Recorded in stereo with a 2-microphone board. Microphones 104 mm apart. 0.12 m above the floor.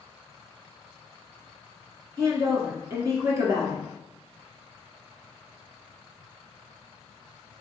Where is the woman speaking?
30° right (ahead or behind), 1.4 m.